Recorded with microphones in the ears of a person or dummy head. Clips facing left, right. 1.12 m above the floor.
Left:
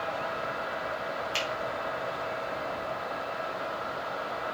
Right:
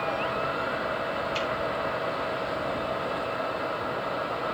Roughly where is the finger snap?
Left.